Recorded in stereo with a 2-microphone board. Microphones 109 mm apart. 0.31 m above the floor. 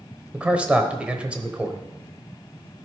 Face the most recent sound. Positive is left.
turn(degrees=-10)  # may be behind; listen again after turning